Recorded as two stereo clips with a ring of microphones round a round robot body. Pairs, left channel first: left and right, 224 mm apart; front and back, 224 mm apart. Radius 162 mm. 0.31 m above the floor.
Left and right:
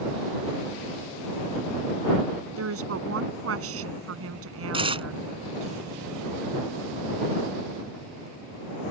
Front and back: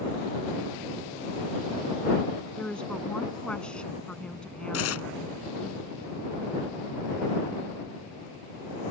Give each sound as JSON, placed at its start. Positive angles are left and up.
{"t": 2.6, "sound": "a woman speaking", "azimuth_deg": -85}
{"t": 4.7, "sound": "tearing paper", "azimuth_deg": -25}